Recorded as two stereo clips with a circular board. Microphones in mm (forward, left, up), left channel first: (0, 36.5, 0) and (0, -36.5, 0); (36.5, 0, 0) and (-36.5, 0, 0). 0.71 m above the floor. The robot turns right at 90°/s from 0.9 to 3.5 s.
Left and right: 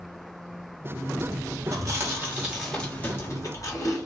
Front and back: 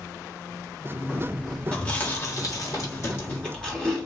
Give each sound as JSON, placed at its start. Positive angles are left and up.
{"t": 1.7, "sound": "chewing", "azimuth_deg": -85, "distance_m": 1.2}